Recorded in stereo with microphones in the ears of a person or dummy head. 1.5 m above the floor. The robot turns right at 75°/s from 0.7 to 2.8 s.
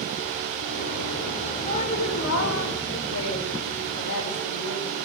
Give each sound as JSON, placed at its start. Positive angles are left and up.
{"t": 1.6, "sound": "a woman speaking", "azimuth_deg": 25, "distance_m": 3.5}